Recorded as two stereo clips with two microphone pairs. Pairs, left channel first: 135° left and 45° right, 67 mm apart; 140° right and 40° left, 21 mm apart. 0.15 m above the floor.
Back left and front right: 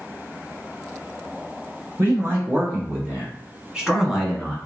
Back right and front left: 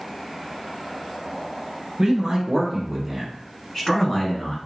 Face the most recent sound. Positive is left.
turn(degrees=-135)